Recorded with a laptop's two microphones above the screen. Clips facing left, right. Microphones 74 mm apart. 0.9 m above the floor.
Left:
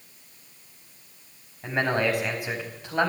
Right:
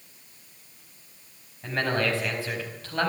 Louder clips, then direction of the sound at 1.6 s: Left 2 dB; 15° left (ahead or behind).